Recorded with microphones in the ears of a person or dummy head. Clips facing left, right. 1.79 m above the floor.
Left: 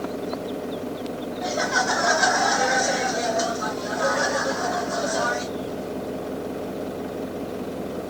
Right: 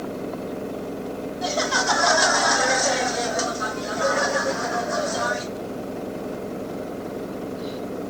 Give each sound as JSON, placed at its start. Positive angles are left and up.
{"t": 1.4, "sound": "laughter", "side_deg": -60, "distance_m": 1.0}